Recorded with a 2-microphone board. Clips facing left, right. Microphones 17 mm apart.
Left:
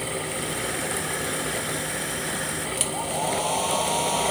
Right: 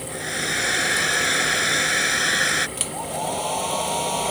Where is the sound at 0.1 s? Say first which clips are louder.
Right 4 dB; 55° right (ahead or behind).